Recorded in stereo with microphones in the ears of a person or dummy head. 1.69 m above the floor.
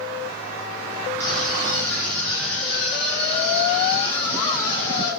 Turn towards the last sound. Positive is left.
turn(degrees=25)  # may be behind; listen again after turning